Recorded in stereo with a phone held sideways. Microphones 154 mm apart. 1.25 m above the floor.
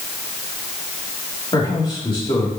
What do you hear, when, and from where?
1.5 s a man speaking: 30° left (ahead or behind), 3 m